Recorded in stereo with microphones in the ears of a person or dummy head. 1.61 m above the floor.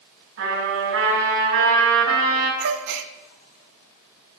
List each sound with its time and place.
0.4 s a trumpet: 60° right (ahead or behind), 5.5 m
2.6 s a gasp: 55° right (ahead or behind), 0.7 m